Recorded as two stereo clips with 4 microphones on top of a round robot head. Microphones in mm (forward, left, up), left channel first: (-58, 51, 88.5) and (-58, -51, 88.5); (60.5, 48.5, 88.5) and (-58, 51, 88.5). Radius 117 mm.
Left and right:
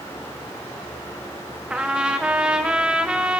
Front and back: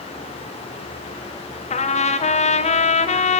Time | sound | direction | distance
1.7 | a trumpet | 10° right | 1.8 m